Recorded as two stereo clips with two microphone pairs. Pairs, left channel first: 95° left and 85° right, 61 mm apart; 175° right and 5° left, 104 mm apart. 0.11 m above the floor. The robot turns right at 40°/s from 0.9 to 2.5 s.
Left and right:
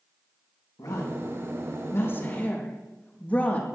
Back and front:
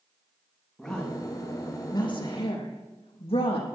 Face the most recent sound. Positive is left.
turn(degrees=165)